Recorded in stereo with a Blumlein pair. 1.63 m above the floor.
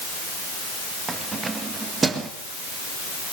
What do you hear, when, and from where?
1.1 s keys jangling: 15° right, 1.9 m